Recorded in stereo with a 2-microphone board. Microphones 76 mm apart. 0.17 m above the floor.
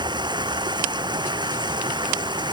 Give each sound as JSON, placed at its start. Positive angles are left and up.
{"t": 0.0, "sound": "running water", "side_deg": -75}